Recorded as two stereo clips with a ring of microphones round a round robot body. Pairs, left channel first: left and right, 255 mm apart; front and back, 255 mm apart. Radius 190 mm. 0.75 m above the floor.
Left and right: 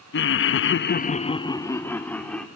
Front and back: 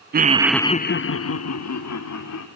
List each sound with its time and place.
0.1 s laughter: 130° left, 0.7 m; by 2.5 s 5° left, 2.0 m